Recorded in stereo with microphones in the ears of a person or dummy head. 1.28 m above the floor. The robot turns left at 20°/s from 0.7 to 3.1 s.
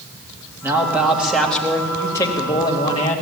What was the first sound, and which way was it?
A man speaking, 170° right.